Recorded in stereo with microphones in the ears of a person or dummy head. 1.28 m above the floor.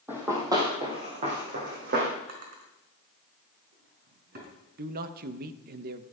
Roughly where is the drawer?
Right.